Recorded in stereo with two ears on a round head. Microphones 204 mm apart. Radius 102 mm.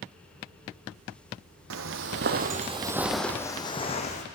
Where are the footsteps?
65° right (ahead or behind), 1.0 m; by 4.2 s 35° left (ahead or behind), 1.2 m.